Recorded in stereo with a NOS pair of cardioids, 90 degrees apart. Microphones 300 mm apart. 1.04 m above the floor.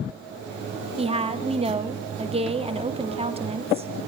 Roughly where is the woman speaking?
Ahead.